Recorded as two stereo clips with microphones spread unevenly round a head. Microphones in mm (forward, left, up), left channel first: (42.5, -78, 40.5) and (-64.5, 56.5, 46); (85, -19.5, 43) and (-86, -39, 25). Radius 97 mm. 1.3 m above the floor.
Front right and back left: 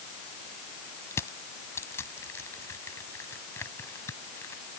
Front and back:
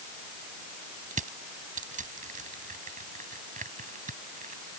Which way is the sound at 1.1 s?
125° right.